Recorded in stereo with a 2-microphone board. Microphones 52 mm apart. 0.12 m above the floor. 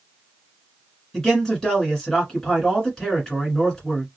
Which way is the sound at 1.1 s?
10° left (ahead or behind).